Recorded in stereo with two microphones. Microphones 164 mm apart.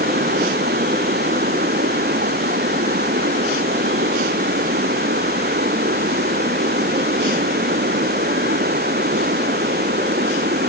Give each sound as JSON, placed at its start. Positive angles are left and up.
{"t": 0.0, "sound": "running water", "side_deg": -75}